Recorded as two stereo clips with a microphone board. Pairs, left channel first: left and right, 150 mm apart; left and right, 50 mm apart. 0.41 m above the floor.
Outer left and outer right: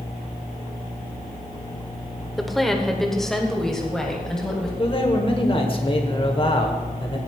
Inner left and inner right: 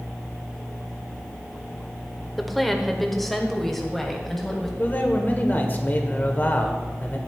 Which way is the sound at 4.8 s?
35° left (ahead or behind).